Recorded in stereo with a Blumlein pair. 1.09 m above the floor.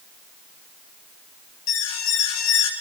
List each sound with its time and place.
1.7 s an alarm: 45° left, 2.5 m